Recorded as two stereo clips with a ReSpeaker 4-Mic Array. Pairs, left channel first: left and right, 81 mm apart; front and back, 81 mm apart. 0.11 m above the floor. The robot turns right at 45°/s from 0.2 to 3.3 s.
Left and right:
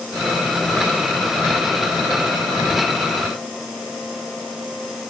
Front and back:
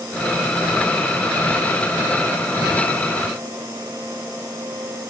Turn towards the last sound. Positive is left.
No sound to turn to.